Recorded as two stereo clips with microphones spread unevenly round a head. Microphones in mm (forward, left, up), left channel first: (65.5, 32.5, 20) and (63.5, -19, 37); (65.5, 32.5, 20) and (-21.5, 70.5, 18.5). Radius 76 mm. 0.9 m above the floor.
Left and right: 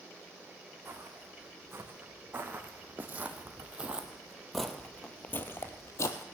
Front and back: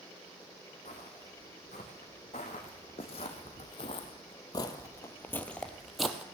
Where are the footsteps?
60° right, 3.5 m; by 6.2 s 75° left, 1.3 m.